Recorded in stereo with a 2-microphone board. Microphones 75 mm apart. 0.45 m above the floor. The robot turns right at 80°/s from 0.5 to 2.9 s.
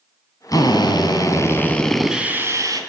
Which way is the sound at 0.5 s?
60° left.